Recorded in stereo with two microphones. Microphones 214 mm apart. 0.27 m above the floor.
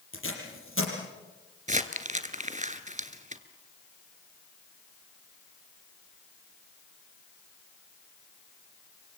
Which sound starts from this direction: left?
Tape being pulled, at 0.1 s.